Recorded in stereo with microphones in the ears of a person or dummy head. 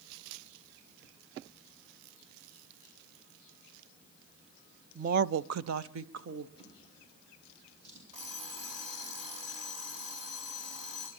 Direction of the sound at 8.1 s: 35° right (ahead or behind).